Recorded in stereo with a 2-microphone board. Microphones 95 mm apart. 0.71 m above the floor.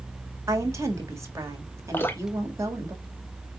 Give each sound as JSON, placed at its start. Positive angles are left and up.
{"t": 0.5, "sound": "a woman speaking", "side_deg": -30, "distance_m": 1.4}
{"t": 1.9, "sound": "dripping", "side_deg": 25, "distance_m": 0.8}